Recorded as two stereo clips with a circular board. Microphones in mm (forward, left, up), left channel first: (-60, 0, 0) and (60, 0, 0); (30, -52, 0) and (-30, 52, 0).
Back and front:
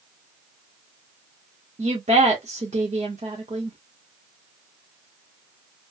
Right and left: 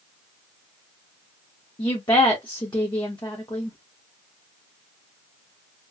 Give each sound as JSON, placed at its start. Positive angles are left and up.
{"t": 1.8, "sound": "a woman speaking", "azimuth_deg": -10, "distance_m": 0.9}